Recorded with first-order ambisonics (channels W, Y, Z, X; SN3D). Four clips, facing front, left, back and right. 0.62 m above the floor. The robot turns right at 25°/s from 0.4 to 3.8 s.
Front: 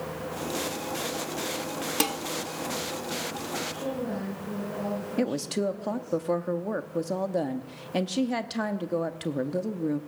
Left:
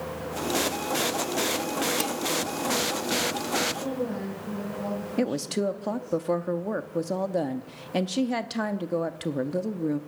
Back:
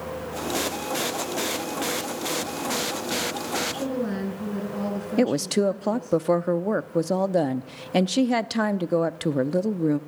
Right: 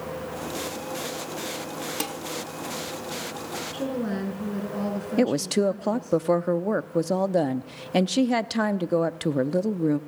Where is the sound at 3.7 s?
135° right, 7.5 m.